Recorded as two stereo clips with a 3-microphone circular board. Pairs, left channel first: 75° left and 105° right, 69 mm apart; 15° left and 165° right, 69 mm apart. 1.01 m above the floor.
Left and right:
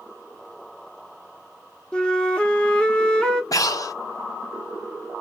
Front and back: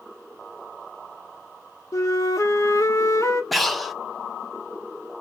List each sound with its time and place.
1.9 s a flute: straight ahead, 0.7 m
3.5 s breathing: 105° left, 0.5 m